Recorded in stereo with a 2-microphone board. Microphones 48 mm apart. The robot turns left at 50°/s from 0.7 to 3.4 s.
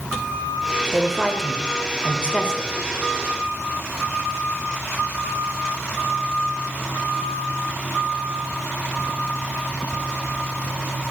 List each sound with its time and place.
0.9 s a woman speaking: centre (ahead or behind), 1.0 m; by 2.7 s 20° left (ahead or behind), 1.0 m